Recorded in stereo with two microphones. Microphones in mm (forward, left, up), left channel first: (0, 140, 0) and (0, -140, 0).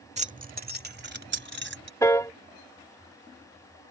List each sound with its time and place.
0.2 s keys jangling: 25° right (ahead or behind); by 1.9 s 45° right (ahead or behind)
2.0 s a piano: 10° left (ahead or behind)